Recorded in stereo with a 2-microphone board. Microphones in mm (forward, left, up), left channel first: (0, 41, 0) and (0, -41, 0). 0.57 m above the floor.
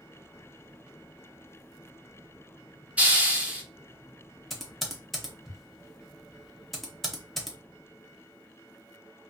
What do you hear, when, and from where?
3.0 s a hiss: 15° right (ahead or behind), 0.6 m
4.5 s typing on a keyboard: centre (ahead or behind), 0.7 m